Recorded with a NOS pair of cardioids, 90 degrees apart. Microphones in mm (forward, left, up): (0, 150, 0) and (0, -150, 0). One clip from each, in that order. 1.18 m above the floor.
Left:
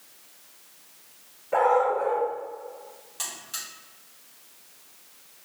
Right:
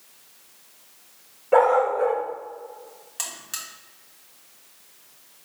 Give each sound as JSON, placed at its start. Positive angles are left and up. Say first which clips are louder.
{"t": 1.5, "sound": "a dog barking", "louder": "right 3 dB", "azimuth_deg": -50, "distance_m": 1.8}
{"t": 3.2, "sound": "a buzzer", "louder": "right 2 dB", "azimuth_deg": -45, "distance_m": 1.3}